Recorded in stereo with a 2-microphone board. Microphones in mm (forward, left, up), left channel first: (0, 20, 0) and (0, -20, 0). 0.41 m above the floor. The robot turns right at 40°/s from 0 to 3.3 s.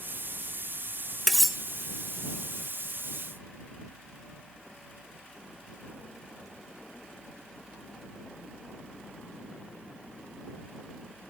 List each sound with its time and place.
1.3 s cutlery clinking: 5° left (ahead or behind); by 1.6 s 10° right (ahead or behind)